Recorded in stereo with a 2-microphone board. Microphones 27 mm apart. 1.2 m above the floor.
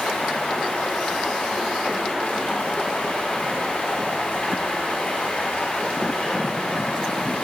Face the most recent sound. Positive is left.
turn(degrees=70)  # may be behind; listen again after turning